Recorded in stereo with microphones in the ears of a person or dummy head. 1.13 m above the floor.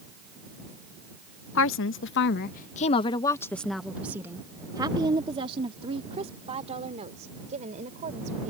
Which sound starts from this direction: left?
A woman speaking, at 1.6 s.